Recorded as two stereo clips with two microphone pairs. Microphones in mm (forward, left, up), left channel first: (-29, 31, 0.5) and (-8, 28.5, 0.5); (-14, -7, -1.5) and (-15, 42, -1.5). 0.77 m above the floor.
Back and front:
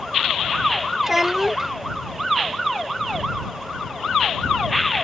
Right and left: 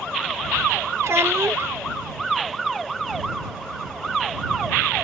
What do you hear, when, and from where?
1.0 s a child speaking: 70° left